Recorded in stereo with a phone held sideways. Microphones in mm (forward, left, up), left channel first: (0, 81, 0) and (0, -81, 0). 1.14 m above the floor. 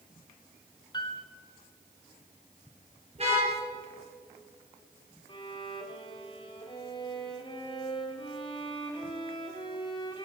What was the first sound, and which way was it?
A piano, 25° left (ahead or behind).